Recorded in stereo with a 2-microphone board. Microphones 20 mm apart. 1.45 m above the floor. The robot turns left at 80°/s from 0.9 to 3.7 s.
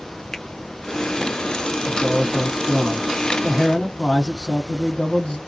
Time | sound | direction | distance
0.3 | a finger snap | 20° left (ahead or behind) | 0.6 m
1.9 | a man speaking | 145° right | 1.5 m